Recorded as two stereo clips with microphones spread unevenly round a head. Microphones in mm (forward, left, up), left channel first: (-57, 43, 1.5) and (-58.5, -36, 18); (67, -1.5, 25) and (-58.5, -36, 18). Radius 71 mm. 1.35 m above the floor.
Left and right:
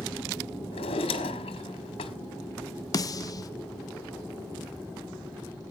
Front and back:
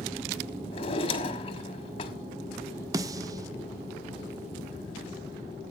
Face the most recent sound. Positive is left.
turn(degrees=130)